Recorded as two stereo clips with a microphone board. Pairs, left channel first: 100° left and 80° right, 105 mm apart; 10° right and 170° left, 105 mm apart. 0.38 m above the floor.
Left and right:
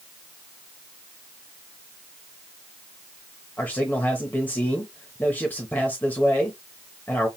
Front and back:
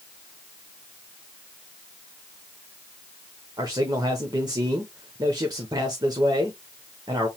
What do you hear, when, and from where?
3.6 s a man speaking: 160° left, 1.0 m